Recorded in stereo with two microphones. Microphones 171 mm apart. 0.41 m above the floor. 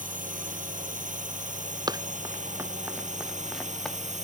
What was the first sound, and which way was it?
A drone, 50° right (ahead or behind).